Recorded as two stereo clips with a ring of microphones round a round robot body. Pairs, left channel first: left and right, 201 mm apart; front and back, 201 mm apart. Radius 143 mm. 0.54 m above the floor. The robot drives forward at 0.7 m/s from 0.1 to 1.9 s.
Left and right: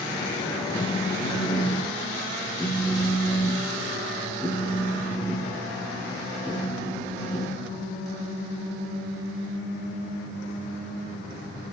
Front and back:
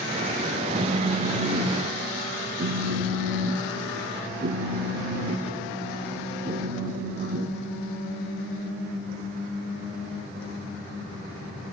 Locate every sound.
0.8 s a phone buzzing: 125° left, 1.0 m; by 7.5 s 165° left, 1.4 m